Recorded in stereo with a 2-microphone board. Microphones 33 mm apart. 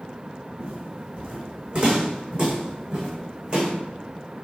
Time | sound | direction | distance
0.6 | footsteps | 45° right (ahead or behind) | 3 m